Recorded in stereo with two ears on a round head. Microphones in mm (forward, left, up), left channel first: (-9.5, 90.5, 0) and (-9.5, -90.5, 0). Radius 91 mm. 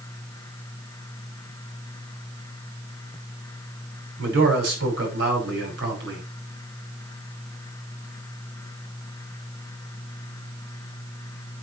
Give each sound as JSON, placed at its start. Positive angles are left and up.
{"t": 4.2, "sound": "a man speaking", "side_deg": -60, "distance_m": 5.5}